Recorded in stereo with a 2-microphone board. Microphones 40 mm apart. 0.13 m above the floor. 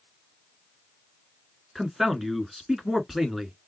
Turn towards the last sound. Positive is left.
turn(degrees=-5)  # may be behind; listen again after turning